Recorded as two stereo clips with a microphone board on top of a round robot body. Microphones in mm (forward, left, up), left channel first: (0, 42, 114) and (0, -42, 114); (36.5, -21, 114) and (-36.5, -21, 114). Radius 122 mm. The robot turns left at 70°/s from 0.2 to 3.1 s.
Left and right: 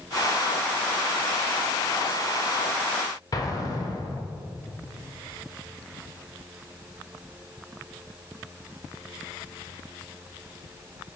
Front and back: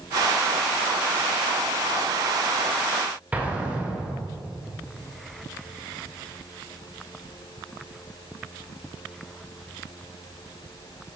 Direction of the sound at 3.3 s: 115° left.